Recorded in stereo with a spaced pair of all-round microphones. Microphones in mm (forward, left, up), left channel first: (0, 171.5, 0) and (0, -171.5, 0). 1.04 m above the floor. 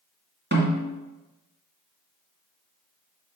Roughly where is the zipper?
I don't hear a zipper.